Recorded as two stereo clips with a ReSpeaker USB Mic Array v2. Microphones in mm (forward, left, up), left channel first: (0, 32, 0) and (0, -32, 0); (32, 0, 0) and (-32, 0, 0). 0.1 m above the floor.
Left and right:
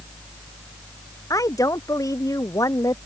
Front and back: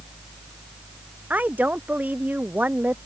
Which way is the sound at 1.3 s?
115° left.